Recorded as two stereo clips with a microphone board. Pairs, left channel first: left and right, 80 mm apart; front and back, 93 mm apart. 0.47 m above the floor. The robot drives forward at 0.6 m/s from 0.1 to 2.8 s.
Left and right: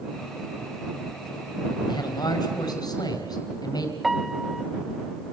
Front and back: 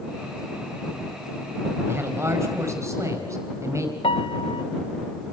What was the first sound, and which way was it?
A man speaking, 120° left.